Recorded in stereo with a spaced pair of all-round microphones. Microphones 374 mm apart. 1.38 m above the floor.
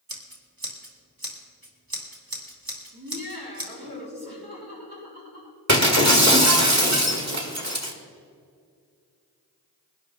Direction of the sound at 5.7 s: 45° right (ahead or behind).